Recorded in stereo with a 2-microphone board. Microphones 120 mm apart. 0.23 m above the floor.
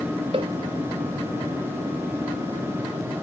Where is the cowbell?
50° right (ahead or behind).